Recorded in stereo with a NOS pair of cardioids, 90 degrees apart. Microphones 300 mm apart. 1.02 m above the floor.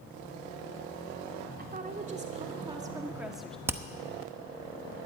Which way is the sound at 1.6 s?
30° right.